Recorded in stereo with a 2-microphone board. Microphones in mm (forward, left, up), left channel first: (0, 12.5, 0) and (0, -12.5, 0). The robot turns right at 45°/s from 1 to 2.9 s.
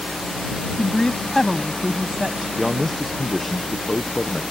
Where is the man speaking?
5° right (ahead or behind); by 4.4 s 10° left (ahead or behind).